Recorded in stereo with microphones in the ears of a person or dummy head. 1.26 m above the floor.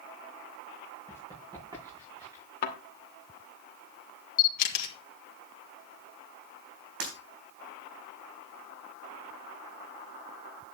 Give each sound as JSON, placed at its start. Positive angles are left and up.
{"t": 1.1, "sound": "running footsteps", "side_deg": -20, "distance_m": 7.5}
{"t": 2.6, "sound": "a thud", "side_deg": 50, "distance_m": 2.0}
{"t": 4.4, "sound": "a camera shutter", "side_deg": 45, "distance_m": 2.5}
{"t": 7.0, "sound": "breaking glass", "side_deg": -55, "distance_m": 4.0}